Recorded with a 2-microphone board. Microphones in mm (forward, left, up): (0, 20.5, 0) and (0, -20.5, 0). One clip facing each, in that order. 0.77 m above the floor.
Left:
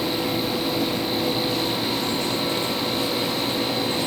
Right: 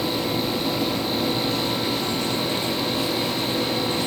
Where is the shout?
I don't hear a shout.